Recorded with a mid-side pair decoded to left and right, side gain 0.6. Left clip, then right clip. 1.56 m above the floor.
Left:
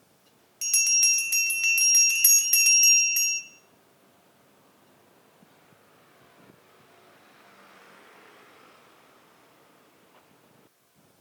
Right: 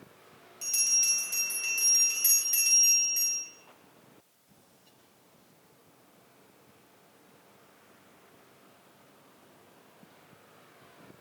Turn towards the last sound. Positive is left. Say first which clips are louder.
# left 5 dB
turn(degrees=45)